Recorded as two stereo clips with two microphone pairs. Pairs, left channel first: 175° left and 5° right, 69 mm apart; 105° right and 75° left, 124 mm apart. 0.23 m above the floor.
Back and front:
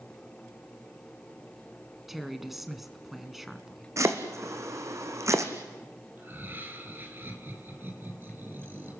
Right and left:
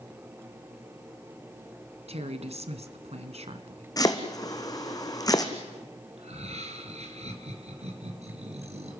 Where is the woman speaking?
85° left, 1.8 m.